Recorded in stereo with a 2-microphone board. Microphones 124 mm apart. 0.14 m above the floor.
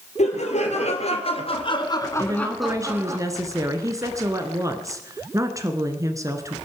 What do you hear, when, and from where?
0.2 s laughter: 65° left (ahead or behind), 3.5 m; by 3.2 s 25° right (ahead or behind), 1.7 m
2.2 s a woman speaking: 25° right (ahead or behind), 1.7 m